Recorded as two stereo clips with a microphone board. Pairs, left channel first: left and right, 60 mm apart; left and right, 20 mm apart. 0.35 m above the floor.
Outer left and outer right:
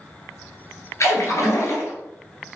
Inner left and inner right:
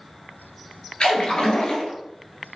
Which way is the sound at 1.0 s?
60° left (ahead or behind).